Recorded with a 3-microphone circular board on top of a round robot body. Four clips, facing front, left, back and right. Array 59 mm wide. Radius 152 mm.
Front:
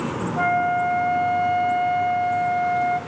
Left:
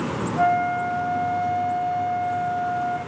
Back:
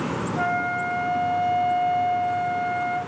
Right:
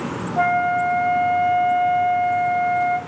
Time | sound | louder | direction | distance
0.4 | a flute | right 3 dB, front 5 dB | 85° right | 0.6 m